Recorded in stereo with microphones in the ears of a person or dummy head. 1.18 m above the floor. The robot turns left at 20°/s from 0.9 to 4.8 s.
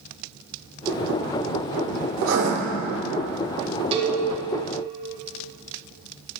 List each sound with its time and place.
2.2 s writing: 70° right (ahead or behind), 2.5 m; by 2.5 s 75° right (ahead or behind), 2.5 m
3.9 s a cowbell: 30° right (ahead or behind), 1.9 m; by 4.2 s 35° right (ahead or behind), 1.9 m